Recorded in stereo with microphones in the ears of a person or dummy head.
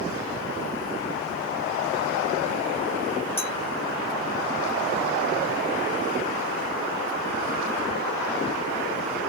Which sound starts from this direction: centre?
A clink, at 3.4 s.